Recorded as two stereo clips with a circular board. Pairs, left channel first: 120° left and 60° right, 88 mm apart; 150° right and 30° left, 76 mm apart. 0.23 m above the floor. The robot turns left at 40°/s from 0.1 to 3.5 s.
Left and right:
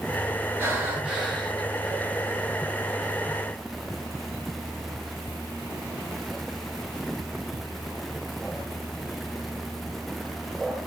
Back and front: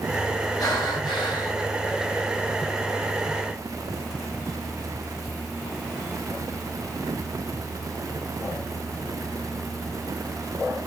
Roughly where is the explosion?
I don't hear an explosion.